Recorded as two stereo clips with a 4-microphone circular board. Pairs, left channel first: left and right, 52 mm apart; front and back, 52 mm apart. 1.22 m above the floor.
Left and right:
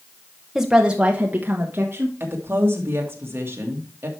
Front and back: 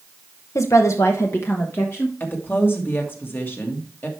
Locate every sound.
0.6 s a woman speaking: 10° right, 0.9 m; by 2.1 s 45° right, 1.5 m
2.2 s a woman speaking: 45° right, 1.8 m